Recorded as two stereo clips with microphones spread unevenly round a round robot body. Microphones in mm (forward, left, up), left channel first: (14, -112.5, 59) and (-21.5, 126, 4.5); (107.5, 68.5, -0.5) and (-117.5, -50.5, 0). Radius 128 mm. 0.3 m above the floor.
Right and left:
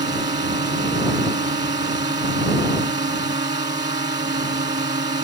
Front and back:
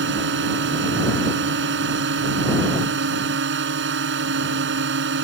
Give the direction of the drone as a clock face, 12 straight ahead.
6 o'clock.